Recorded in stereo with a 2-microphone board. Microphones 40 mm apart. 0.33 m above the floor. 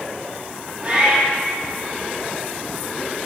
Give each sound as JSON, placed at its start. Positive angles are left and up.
{"t": 0.8, "sound": "a cat meowing", "side_deg": -30, "distance_m": 5.0}